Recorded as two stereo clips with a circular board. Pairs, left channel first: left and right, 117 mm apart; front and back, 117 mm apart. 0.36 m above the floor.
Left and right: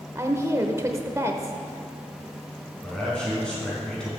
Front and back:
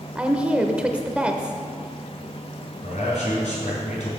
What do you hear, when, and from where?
0.1 s a woman speaking: 110° right, 0.8 m
2.8 s a man speaking: 5° left, 4 m